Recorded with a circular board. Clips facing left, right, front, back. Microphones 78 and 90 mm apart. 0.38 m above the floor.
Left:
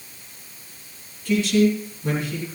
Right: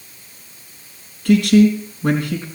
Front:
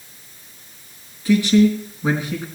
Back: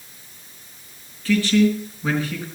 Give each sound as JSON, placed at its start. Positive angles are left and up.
{"t": 1.2, "sound": "a man speaking", "azimuth_deg": -75, "distance_m": 3.5}